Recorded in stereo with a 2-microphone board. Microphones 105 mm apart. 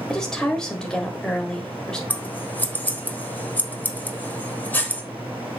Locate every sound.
0.1 s a woman speaking: 5° left (ahead or behind), 1.5 m
2.1 s scissors: 15° left (ahead or behind), 1.3 m